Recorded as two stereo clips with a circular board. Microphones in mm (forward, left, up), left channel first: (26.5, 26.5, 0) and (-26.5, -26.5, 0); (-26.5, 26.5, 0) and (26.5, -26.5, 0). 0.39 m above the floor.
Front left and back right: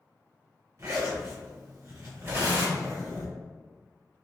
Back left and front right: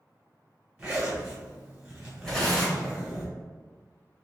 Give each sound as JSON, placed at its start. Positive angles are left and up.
{"t": 0.8, "sound": "a zipper", "azimuth_deg": -115, "distance_m": 1.6}
{"t": 2.2, "sound": "tearing paper", "azimuth_deg": -150, "distance_m": 1.8}